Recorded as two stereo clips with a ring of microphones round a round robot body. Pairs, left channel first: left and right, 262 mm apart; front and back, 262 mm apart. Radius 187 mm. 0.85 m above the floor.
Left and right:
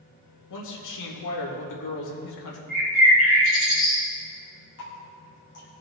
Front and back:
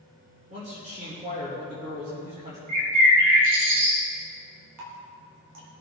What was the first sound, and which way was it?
A man speaking, 110° left.